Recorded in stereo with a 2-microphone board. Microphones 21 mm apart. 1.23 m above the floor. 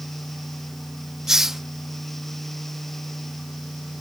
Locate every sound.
1.3 s a hiss: 25° right (ahead or behind)